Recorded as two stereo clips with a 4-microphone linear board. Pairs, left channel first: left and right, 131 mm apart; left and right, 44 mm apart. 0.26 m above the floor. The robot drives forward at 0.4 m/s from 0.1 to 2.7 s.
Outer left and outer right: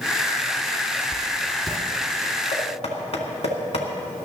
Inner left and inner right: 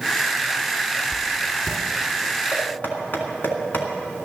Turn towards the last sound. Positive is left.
turn(degrees=50)  # may be behind; listen again after turning